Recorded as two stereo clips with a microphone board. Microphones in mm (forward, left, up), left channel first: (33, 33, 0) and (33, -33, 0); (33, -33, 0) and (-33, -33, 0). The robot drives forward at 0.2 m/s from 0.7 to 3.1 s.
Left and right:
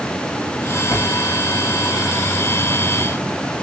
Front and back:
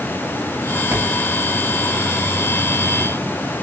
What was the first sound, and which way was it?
A drawer, 125° left.